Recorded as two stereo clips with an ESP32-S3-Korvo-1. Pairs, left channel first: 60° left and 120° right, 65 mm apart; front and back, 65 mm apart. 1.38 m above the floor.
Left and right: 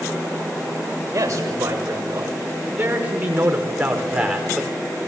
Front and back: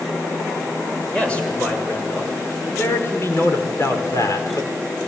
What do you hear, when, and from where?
1.1 s a man speaking: 75° right, 7 m; by 4.7 s 30° right, 5.5 m